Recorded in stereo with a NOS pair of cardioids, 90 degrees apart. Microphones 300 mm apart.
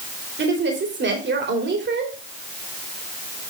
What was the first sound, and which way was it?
A woman speaking, 35° right.